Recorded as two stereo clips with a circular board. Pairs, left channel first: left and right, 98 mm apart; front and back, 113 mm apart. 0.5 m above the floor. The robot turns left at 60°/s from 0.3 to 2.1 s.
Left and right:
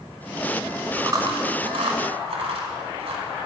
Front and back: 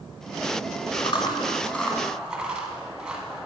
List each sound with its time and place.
1.0 s chewing: 30° right, 1.4 m; by 3.5 s 100° right, 1.4 m